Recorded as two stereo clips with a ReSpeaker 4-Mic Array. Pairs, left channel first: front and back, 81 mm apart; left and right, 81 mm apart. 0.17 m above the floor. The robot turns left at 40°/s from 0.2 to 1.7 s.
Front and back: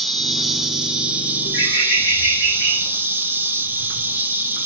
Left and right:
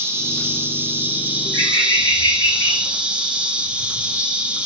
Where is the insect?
85° right, 0.8 m; by 4.7 s 145° right, 0.8 m.